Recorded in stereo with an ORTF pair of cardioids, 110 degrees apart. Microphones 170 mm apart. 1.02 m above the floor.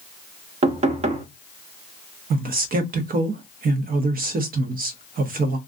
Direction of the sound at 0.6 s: 40° right.